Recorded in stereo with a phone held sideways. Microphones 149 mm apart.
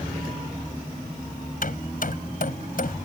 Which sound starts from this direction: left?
Hammering, at 1.6 s.